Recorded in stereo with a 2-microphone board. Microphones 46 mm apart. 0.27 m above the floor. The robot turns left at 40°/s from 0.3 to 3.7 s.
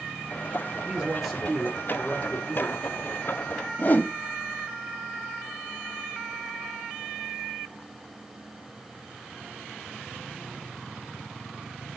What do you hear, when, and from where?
0.9 s a man speaking: 155° right, 5.5 m; by 3.1 s 115° left, 5.5 m
3.8 s a whoosh: 40° left (ahead or behind), 0.8 m